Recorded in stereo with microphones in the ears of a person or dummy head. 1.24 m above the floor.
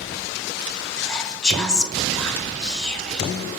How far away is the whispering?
About 0.6 m.